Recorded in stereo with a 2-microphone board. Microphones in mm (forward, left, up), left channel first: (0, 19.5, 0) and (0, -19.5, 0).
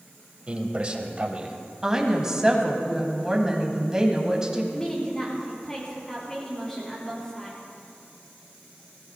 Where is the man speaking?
30° right (ahead or behind), 1.4 m.